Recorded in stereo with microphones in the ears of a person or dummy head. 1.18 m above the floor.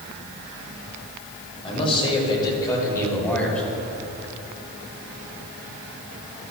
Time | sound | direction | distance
1.6 | a man speaking | 35° left (ahead or behind) | 4.5 m